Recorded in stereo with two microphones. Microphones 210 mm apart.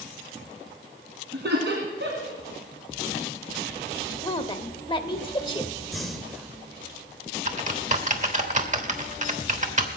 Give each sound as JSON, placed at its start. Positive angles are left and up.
{"t": 1.3, "sound": "laughter", "side_deg": -55, "distance_m": 3.0}
{"t": 4.2, "sound": "a woman speaking", "side_deg": 25, "distance_m": 1.1}
{"t": 5.9, "sound": "breathing", "side_deg": 0, "distance_m": 1.2}
{"t": 7.5, "sound": "typing on a keyboard", "side_deg": -35, "distance_m": 1.1}